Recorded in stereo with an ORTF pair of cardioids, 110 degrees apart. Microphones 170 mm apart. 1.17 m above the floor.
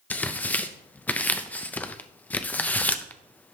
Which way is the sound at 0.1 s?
10° left.